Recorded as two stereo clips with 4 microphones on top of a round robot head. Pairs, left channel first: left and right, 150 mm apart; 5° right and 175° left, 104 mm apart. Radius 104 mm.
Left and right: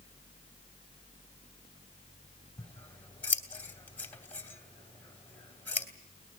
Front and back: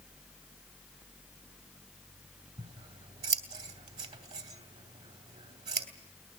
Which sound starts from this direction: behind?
Scissors, at 2.6 s.